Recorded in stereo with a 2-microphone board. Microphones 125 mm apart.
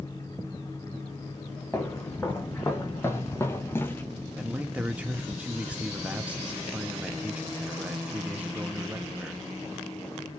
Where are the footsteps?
15° left (ahead or behind), 1.9 m.